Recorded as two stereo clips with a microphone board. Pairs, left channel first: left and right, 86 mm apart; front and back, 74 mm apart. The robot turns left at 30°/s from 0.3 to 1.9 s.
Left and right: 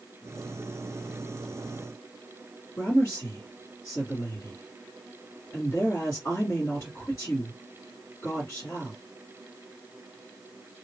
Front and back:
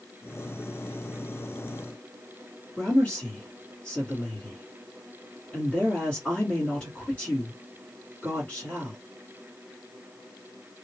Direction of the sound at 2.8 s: 65° left.